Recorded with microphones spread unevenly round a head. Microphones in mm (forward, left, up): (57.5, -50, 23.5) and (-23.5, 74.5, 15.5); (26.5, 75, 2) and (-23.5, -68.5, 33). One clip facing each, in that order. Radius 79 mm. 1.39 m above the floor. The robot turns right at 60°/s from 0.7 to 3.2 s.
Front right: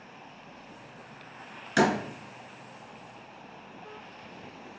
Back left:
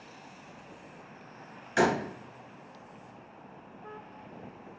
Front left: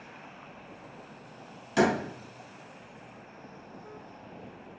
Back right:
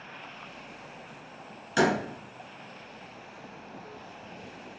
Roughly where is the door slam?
Ahead.